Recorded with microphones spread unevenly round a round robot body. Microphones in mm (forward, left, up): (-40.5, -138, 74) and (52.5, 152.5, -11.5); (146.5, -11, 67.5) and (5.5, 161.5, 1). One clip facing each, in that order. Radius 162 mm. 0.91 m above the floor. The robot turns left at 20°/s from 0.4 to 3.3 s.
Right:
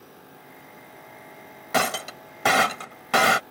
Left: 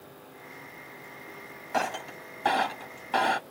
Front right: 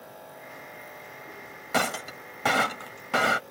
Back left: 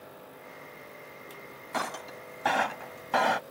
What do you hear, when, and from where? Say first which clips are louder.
1.7 s breaking glass: right 5 dB, front right 7 dB; 85° right; by 3.4 s 120° right